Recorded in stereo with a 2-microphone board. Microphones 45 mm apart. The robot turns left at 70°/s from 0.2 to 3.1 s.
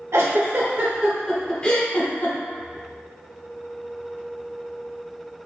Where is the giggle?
85° right, 0.9 m; by 2.4 s 65° left (ahead or behind), 0.9 m.